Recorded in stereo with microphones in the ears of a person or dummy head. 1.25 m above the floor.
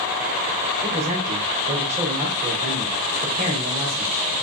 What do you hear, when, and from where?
0.8 s a man speaking: 40° right (ahead or behind), 4 m